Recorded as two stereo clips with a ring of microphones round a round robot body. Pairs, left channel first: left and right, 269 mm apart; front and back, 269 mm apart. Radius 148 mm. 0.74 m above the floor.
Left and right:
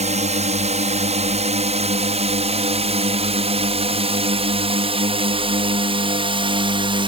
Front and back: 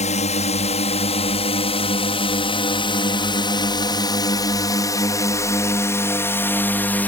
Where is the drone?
45° right; by 7.1 s 70° right.